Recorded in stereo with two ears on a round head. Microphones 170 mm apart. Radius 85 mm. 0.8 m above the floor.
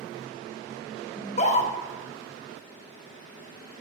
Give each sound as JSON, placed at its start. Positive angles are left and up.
{"t": 1.2, "sound": "a scream", "side_deg": 40, "distance_m": 0.9}